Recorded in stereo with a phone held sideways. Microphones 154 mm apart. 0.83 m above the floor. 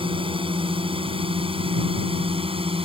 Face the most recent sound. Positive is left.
turn(degrees=-35)  # may be behind; listen again after turning